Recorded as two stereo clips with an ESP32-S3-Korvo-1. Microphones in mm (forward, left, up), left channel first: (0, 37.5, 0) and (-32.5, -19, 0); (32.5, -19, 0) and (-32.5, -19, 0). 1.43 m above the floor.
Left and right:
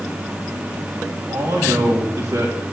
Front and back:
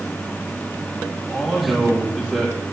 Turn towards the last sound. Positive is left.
turn(degrees=-100)